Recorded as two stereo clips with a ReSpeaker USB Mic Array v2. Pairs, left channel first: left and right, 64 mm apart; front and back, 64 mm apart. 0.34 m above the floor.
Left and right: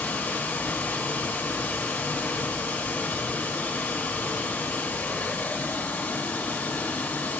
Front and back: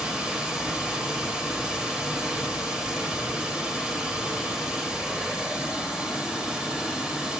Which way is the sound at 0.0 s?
115° left.